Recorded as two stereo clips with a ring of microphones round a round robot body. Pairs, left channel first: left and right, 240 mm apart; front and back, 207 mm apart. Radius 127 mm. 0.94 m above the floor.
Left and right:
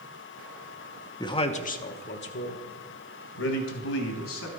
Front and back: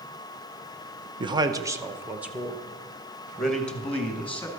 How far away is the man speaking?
About 0.9 m.